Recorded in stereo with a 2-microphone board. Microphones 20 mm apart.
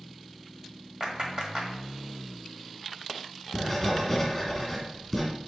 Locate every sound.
1.0 s a clap: 40° right (ahead or behind), 1.4 m
3.5 s writing: 10° left (ahead or behind), 2.5 m